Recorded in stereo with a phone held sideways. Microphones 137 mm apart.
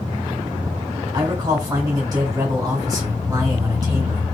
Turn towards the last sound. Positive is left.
turn(degrees=-30)  # may be behind; listen again after turning